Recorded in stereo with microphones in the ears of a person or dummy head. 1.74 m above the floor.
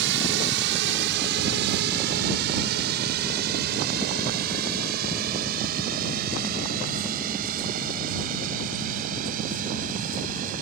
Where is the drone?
65° right (ahead or behind); by 10.6 s 45° right (ahead or behind).